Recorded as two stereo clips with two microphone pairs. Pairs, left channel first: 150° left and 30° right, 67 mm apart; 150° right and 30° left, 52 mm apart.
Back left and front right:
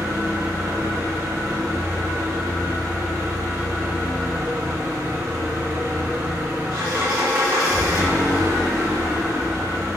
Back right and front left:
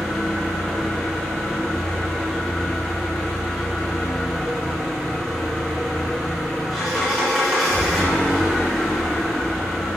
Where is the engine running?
60° right, 1.1 m.